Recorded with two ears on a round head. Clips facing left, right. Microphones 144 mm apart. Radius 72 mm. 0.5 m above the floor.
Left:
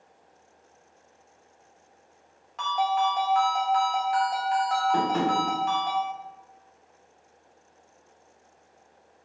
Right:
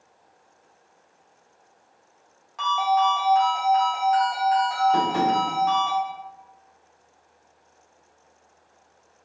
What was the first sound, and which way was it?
A ringtone, 5° right (ahead or behind).